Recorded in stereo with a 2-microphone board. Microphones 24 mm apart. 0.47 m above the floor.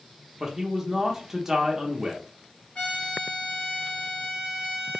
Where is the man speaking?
20° right (ahead or behind), 0.7 m.